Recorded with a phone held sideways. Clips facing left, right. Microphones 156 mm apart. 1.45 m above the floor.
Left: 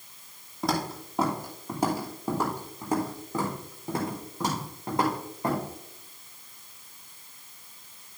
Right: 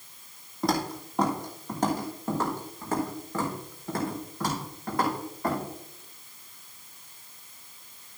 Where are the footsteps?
Centre (ahead or behind), 2.5 m; by 5.6 s 25° left (ahead or behind), 5 m.